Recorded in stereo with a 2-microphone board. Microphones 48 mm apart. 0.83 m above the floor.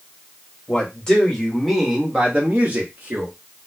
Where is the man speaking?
20° left (ahead or behind), 1.3 m; by 3.3 s 45° right (ahead or behind), 1.2 m.